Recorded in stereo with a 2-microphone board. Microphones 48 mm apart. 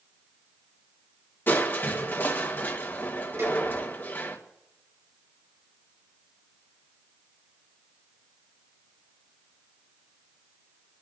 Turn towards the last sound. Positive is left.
turn(degrees=-60)  # may be behind; listen again after turning